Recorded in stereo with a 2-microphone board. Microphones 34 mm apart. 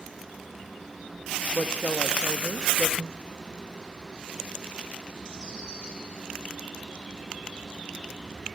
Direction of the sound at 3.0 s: 10° right (ahead or behind).